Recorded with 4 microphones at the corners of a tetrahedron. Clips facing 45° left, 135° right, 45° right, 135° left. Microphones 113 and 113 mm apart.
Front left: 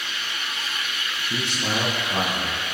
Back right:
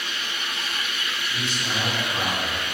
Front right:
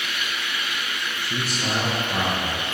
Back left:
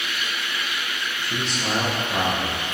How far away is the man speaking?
About 5.5 m.